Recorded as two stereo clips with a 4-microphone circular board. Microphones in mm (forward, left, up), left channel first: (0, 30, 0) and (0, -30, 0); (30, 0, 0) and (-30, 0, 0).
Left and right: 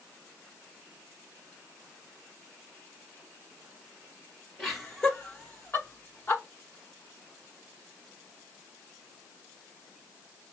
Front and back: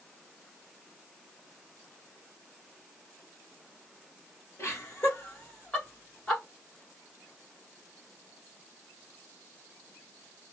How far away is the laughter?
About 1.4 m.